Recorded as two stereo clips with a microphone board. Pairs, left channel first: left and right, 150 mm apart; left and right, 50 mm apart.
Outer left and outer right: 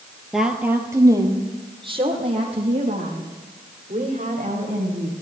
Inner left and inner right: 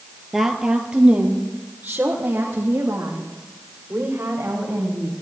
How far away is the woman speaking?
About 2 m.